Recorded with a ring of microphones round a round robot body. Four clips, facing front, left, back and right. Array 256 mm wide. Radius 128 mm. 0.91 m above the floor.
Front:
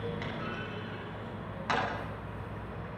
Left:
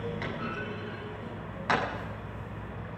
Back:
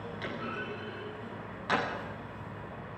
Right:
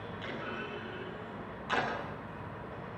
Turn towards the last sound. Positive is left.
turn(degrees=80)